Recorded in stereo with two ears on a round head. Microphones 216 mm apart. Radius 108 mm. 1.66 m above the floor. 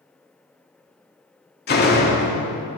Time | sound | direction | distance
1.7 | a door slam | 45° left (ahead or behind) | 2.5 m